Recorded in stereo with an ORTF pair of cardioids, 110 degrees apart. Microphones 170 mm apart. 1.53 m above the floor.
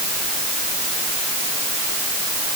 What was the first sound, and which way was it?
Only background noise.